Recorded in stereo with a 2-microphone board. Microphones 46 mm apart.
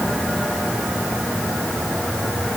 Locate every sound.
Only background noise.